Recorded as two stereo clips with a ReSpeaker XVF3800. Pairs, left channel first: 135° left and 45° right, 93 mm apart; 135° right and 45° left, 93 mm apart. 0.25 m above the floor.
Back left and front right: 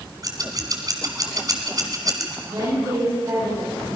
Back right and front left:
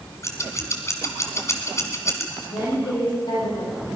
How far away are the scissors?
About 2.5 m.